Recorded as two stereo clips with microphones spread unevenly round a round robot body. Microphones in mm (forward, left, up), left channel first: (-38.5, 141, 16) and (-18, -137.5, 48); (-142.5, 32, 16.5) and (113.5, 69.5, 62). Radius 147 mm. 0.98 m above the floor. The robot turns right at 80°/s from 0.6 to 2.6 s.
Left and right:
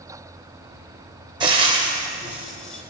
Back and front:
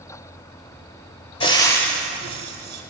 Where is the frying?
105° right, 0.7 m; by 2.8 s 10° right, 0.7 m.